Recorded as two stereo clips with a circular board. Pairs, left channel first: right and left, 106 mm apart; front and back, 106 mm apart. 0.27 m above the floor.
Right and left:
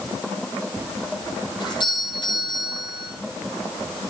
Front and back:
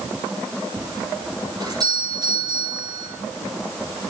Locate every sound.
1.6 s a doorbell: 130° right, 9.5 m